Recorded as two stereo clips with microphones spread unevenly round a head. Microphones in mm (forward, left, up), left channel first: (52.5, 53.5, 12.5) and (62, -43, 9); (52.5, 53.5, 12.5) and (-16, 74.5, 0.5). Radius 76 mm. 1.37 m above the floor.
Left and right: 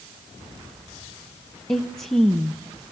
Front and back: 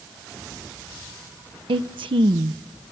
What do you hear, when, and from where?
1.7 s a woman speaking: straight behind, 0.6 m